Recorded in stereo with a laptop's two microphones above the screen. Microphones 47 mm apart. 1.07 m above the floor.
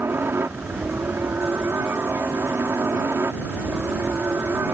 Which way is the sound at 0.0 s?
55° right (ahead or behind).